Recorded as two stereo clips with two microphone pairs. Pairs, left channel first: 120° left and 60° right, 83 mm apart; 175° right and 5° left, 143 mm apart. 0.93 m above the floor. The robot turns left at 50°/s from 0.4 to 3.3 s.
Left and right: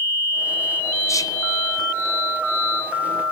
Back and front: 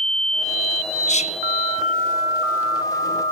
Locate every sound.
1.1 s whispering: 165° left, 0.8 m; by 1.4 s 150° left, 0.8 m